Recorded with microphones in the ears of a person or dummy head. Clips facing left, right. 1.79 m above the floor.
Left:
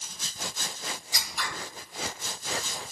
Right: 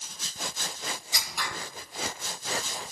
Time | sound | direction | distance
1.1 | scissors | 60° right (ahead or behind) | 1.6 m